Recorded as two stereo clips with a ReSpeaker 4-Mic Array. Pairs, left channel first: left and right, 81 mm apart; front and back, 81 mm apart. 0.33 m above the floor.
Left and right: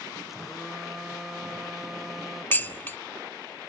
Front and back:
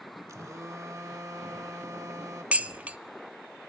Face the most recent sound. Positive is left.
turn(degrees=125)